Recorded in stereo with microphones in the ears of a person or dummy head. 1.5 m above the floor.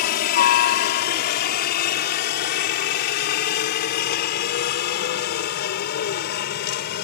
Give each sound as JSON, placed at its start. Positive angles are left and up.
{"t": 0.0, "sound": "a helicopter", "side_deg": 45}